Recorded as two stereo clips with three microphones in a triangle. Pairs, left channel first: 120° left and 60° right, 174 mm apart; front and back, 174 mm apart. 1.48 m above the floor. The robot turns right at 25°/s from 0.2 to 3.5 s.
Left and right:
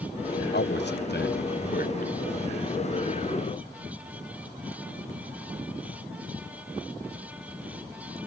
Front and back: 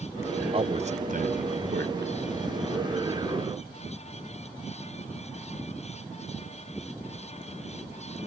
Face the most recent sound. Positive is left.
turn(degrees=-165)